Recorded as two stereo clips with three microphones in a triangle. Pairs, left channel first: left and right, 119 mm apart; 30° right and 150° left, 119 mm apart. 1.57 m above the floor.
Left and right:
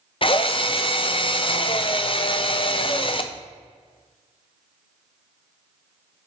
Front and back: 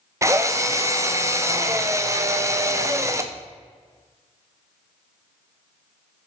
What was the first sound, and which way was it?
A drill, 95° left.